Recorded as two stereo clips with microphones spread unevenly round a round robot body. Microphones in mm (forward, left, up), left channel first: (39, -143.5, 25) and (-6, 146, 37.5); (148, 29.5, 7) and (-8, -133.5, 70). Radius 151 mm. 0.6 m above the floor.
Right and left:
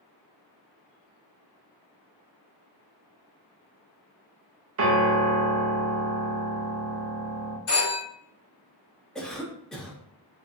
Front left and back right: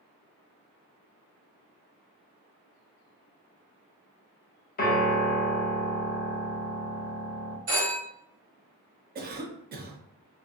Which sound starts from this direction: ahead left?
A piano, at 4.8 s.